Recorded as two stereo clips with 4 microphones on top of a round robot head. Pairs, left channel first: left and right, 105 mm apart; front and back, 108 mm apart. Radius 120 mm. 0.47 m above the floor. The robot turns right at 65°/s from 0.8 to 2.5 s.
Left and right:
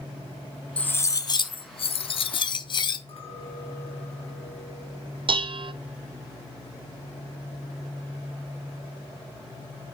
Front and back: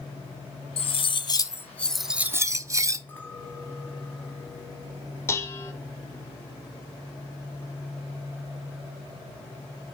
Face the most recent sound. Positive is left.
turn(degrees=-60)